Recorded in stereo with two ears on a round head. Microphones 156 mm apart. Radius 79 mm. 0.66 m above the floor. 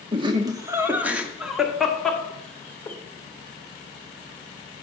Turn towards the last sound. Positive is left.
turn(degrees=10)  # may be behind; listen again after turning